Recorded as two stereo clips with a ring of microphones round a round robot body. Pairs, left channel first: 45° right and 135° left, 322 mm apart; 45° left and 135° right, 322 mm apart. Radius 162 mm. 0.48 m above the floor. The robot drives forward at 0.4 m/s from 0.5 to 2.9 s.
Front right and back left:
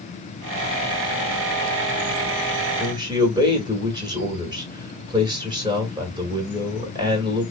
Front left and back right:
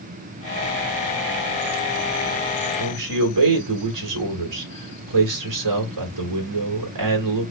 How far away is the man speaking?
About 1.8 m.